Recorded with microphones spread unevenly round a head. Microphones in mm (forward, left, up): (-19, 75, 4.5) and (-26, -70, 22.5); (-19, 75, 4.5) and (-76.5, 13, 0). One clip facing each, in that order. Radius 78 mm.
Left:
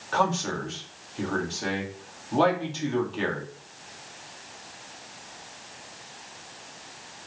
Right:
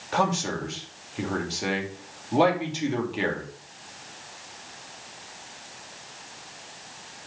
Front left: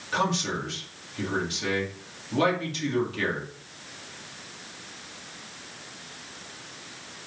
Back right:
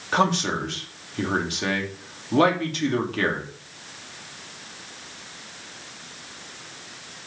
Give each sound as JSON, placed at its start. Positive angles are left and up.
{"t": 0.1, "sound": "a man speaking", "azimuth_deg": -170, "distance_m": 2.5}